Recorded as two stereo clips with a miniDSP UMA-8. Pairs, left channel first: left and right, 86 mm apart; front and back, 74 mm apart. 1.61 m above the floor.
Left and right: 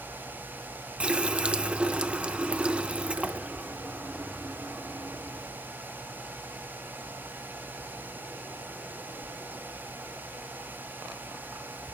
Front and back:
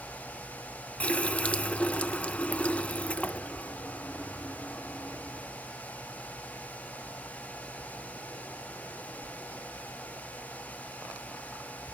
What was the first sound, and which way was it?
A running tap, 35° right.